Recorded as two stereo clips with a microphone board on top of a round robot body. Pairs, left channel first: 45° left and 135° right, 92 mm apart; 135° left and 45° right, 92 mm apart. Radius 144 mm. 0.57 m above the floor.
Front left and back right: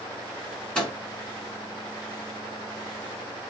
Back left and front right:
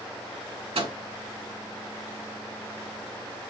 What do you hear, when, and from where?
0.8 s a microwave: 35° right, 4 m